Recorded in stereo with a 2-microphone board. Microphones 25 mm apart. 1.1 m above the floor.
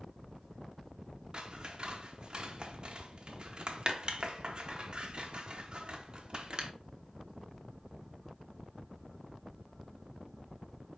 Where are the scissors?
35° right (ahead or behind), 0.7 m.